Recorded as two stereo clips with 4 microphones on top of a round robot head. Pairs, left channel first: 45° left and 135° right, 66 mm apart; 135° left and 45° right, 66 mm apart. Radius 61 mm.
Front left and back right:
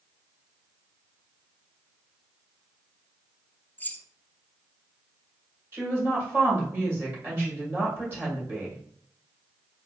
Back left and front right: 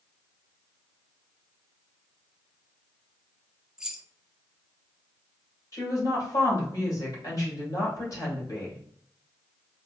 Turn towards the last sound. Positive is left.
turn(degrees=170)